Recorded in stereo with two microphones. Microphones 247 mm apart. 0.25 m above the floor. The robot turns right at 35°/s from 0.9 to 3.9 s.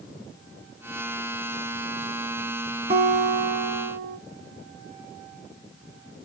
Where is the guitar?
140° right, 1.0 m; by 4.2 s 105° right, 1.0 m.